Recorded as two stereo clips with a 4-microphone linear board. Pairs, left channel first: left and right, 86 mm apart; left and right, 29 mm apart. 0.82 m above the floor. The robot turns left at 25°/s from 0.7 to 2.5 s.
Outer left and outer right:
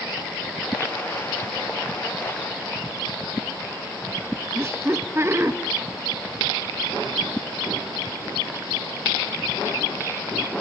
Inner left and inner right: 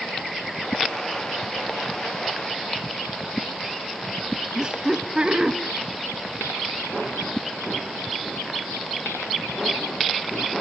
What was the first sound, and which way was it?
Laughter, 30° right (ahead or behind).